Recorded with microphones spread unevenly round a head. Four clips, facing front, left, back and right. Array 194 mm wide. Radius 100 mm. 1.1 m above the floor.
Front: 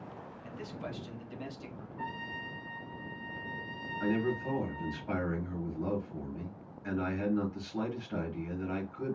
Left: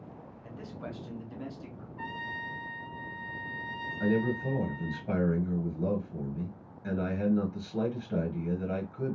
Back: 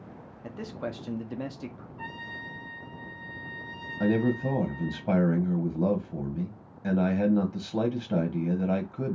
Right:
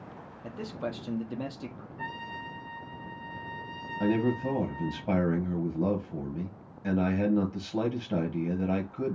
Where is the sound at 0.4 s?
130° right, 1.0 m.